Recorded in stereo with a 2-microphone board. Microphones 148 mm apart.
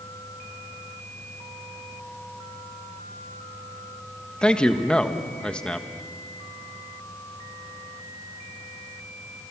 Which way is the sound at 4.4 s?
5° left (ahead or behind).